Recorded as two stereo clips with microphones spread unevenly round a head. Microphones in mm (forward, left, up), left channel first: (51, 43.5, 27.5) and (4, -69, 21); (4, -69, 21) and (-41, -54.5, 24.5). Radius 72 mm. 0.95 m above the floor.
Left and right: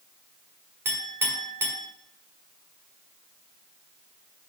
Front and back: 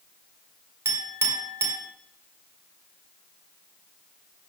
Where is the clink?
170° left, 1.8 m.